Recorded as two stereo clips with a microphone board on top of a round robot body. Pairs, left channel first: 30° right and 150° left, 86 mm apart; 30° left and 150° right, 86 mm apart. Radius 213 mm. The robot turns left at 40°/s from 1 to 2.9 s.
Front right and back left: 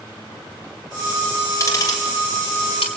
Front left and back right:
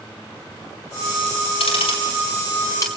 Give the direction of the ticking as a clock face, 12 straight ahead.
11 o'clock.